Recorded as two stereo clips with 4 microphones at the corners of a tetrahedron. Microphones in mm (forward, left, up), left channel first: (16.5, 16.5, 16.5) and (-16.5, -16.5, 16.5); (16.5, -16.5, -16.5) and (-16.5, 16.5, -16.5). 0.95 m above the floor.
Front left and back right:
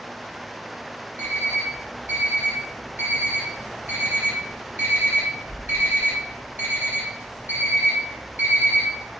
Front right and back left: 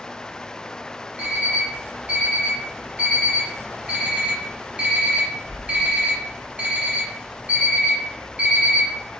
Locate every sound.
1.2 s an alarm clock: 165° right, 1.0 m